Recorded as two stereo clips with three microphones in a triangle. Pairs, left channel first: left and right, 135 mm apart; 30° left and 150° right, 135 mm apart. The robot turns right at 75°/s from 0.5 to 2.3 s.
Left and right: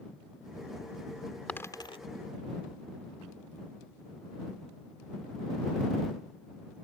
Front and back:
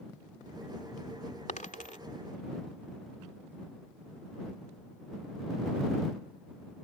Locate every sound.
1.5 s a dropped coin: 10° left; by 2.0 s 45° left